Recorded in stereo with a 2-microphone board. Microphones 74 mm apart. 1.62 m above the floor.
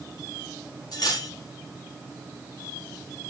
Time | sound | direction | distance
0.9 | cutlery clinking | 60° left (ahead or behind) | 1.4 m